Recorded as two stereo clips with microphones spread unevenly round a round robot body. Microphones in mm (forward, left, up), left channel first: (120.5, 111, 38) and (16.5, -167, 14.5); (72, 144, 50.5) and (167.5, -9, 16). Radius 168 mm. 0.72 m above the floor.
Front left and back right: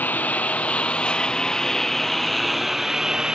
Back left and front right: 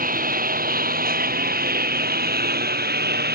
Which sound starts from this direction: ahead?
A lawn mower, at 0.0 s.